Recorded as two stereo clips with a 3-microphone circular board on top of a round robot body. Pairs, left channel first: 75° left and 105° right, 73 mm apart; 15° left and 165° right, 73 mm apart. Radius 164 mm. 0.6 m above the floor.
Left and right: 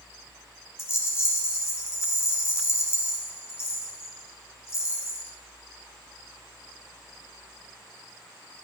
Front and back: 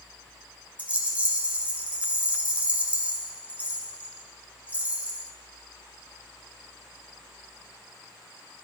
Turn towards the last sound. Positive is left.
turn(degrees=125)